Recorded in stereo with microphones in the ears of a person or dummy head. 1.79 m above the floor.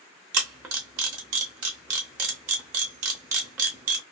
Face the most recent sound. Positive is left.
turn(degrees=-10)  # may be behind; listen again after turning